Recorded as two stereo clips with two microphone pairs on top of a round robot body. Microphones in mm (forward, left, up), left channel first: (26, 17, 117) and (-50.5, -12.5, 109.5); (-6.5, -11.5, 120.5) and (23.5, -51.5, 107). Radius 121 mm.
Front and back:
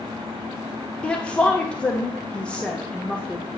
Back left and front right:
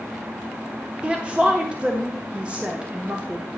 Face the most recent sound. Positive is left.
turn(degrees=-55)